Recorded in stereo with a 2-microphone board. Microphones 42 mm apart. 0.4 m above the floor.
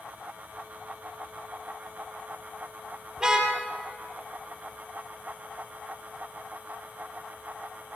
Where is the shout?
I don't hear a shout.